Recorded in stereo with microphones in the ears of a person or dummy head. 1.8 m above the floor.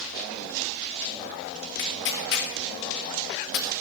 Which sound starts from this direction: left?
Tearing paper, at 1.8 s.